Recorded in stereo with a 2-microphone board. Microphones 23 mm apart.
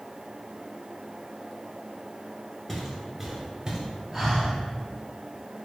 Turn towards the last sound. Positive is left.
turn(degrees=0)  # may be behind; listen again after turning